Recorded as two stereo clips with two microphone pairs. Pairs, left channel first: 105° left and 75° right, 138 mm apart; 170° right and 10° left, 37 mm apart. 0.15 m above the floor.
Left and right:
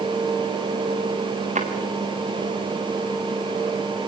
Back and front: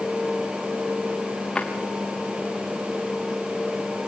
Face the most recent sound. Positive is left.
turn(degrees=-105)